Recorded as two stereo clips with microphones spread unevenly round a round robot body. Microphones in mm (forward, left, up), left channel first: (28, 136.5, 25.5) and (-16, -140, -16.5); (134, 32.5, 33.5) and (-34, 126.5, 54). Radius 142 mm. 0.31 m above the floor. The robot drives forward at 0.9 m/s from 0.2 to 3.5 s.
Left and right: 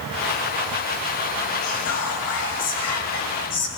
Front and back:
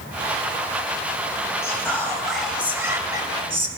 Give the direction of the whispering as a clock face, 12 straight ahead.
11 o'clock.